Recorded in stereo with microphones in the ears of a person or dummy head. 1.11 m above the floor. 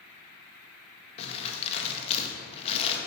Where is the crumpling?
35° left (ahead or behind), 1.9 m.